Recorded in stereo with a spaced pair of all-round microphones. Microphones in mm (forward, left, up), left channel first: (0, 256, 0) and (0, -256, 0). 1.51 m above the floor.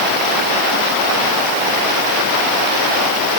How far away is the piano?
No piano in this recording.